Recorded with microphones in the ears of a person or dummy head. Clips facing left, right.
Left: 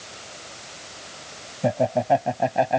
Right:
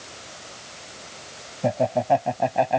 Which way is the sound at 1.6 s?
5° left (ahead or behind).